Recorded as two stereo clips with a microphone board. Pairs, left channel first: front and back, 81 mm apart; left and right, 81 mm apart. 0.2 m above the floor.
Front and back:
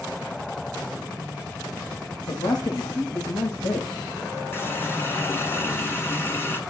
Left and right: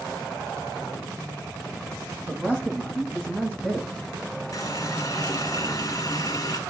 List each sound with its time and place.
2.3 s a man speaking: 20° right, 7 m
4.5 s a running tap: 55° left, 1.5 m